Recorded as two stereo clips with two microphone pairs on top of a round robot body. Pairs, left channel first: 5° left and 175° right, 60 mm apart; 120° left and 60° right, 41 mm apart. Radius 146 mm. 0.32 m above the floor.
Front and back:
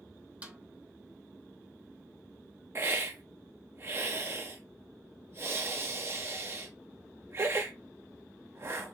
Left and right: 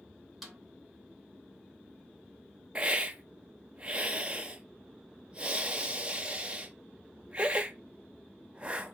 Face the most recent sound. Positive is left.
turn(degrees=-125)